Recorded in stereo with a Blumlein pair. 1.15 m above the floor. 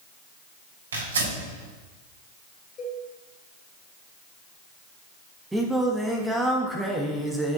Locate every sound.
0.9 s tearing paper: 70° right, 4 m
2.8 s a cowbell: 30° left, 3.5 m
5.5 s singing: 5° right, 1.3 m